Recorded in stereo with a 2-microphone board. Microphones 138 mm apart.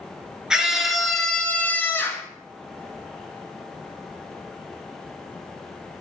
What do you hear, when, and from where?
0.5 s a scream: 5° right (ahead or behind), 1.3 m; by 2.3 s 20° left (ahead or behind), 1.1 m